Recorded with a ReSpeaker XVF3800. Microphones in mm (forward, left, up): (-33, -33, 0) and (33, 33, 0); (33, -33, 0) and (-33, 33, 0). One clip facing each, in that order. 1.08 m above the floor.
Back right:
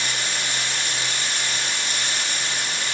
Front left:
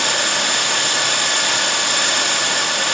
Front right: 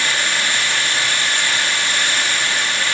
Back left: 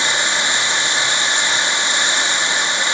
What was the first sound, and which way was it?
Running water, 65° left.